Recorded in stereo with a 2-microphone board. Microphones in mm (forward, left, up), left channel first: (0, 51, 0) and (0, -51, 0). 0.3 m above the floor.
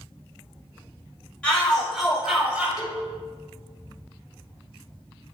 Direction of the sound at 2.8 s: 40° left (ahead or behind).